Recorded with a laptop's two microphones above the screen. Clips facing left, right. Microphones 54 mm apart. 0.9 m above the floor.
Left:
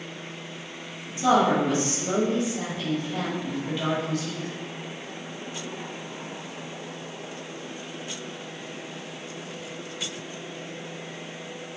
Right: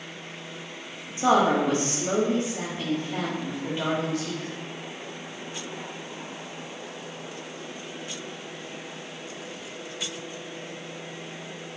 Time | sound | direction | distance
1.2 | a woman speaking | 30° right (ahead or behind) | 1.0 m